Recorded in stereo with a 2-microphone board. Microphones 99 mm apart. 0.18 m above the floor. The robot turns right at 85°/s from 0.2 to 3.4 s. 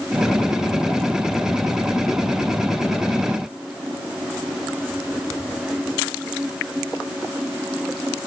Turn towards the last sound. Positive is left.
No sound to turn to.